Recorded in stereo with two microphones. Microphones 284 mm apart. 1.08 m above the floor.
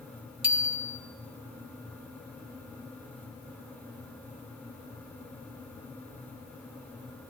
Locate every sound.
0.4 s a bicycle bell: 70° left (ahead or behind), 2 m